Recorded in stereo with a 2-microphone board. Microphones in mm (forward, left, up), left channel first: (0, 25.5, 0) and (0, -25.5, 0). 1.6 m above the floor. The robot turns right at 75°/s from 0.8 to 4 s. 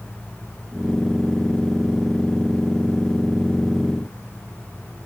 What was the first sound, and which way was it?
Only background noise.